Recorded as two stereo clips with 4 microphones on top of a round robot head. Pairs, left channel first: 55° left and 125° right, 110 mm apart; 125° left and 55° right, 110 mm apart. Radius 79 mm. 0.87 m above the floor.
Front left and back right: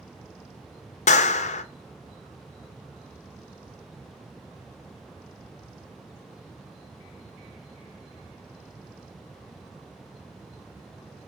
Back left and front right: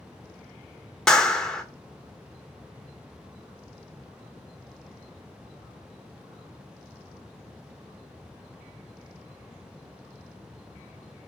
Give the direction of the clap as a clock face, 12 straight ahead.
11 o'clock.